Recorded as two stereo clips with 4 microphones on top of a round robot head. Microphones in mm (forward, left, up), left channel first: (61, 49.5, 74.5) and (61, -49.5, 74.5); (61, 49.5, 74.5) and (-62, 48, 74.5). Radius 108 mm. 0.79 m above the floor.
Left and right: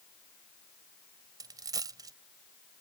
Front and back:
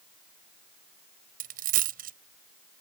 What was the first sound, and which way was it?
A dropped coin, 155° right.